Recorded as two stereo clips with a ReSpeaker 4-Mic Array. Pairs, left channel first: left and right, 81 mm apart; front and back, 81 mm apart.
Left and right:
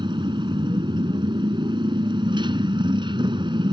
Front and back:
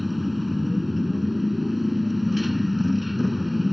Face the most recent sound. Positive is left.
turn(degrees=-90)